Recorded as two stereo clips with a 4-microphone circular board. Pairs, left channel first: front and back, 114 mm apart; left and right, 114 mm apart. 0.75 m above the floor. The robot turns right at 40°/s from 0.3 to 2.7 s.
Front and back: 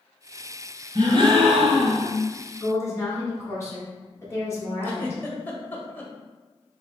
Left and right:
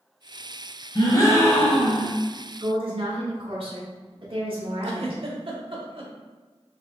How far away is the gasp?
About 1.2 m.